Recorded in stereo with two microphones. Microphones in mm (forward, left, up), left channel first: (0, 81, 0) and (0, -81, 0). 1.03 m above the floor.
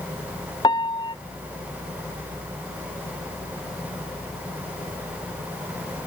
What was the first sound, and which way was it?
A piano, 30° left (ahead or behind).